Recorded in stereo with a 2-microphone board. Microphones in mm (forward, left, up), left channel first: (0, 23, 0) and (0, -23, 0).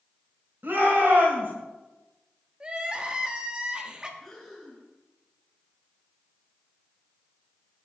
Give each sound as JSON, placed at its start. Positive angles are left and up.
{"t": 0.6, "sound": "a shout", "side_deg": -55, "distance_m": 3.0}
{"t": 2.6, "sound": "crying", "side_deg": -20, "distance_m": 1.2}
{"t": 4.2, "sound": "breathing", "side_deg": 5, "distance_m": 6.0}